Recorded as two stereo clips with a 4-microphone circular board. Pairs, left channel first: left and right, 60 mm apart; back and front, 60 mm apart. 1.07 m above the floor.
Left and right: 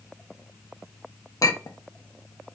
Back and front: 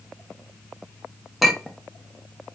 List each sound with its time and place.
1.4 s a clink: 90° left, 0.5 m